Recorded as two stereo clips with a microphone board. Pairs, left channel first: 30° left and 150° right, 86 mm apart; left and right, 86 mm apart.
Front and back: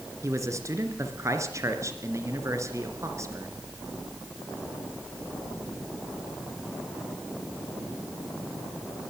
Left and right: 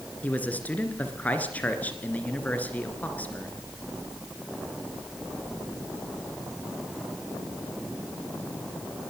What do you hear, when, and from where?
0.2 s a man speaking: 160° left, 2.5 m